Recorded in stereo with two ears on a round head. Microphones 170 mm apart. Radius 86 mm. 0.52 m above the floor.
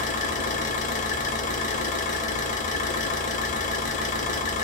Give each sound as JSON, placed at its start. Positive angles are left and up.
{"t": 0.0, "sound": "an engine running", "side_deg": 45, "distance_m": 0.7}